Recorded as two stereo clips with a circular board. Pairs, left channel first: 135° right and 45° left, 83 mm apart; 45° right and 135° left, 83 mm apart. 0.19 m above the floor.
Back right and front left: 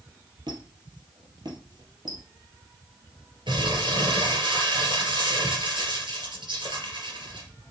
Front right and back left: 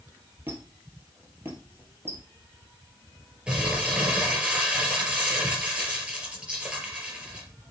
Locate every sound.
0.5 s a squeak: 75° left, 3 m
3.5 s crumpling: 60° left, 4 m